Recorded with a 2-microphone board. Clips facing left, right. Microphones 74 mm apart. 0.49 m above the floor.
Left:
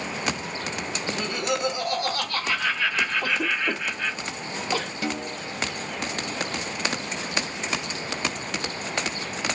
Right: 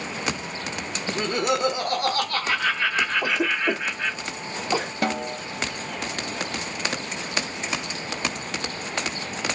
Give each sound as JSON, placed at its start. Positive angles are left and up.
{"t": 1.1, "sound": "laughter", "side_deg": -50, "distance_m": 1.3}
{"t": 3.2, "sound": "a cough", "side_deg": -20, "distance_m": 0.7}
{"t": 5.0, "sound": "a snare drum", "side_deg": -60, "distance_m": 0.6}